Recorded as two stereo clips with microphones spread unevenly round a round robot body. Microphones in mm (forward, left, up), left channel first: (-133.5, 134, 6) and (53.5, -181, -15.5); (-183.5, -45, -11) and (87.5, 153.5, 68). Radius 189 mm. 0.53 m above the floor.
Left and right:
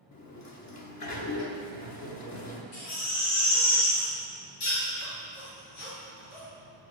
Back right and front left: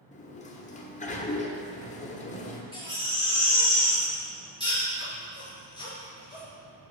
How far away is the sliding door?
About 1.1 m.